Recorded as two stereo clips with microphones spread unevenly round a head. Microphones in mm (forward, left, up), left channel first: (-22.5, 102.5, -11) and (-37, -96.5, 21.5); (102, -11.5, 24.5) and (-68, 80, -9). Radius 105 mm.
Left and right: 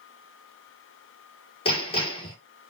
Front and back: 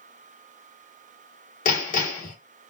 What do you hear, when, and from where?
1.6 s hammering: 20° left, 1.4 m